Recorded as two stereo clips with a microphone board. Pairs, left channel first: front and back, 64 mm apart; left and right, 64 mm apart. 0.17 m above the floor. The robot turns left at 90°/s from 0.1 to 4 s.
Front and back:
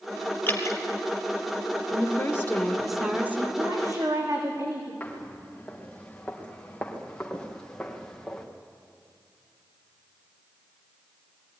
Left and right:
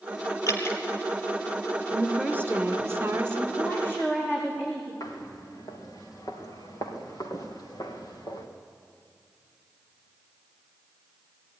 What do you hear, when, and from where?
0.5 s dripping: 60° left, 2.5 m; by 0.8 s 30° left, 2.5 m
1.9 s a woman speaking: straight ahead, 1.9 m; by 3.5 s 140° right, 1.9 m
3.6 s a woman speaking: 175° right, 8.5 m; by 4.9 s 145° left, 8.5 m
5.0 s footsteps: 70° left, 5.5 m; by 8.5 s 80° left, 3.5 m